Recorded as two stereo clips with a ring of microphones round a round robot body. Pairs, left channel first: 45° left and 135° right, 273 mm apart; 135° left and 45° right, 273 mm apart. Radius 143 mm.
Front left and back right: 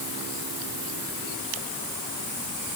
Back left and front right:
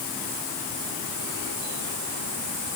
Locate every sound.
Only background noise.